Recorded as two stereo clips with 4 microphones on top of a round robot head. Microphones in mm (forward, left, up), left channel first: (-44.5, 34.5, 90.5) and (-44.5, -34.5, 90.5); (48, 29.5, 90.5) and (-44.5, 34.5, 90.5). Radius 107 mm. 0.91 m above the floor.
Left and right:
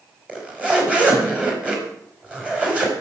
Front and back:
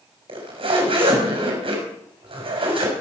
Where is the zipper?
160° right, 5 m.